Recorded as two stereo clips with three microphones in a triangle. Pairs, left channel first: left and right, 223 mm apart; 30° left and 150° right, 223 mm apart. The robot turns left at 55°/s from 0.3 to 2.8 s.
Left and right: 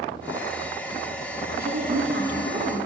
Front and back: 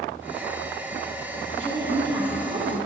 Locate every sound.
1.6 s a woman speaking: 55° right, 1.4 m; by 2.8 s 120° right, 1.4 m